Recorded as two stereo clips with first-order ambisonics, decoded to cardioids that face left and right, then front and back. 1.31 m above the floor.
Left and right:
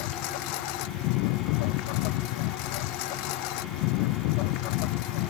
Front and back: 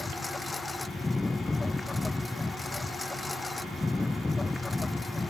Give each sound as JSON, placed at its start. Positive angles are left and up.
{"t": 0.0, "sound": "a lawn mower", "azimuth_deg": 85}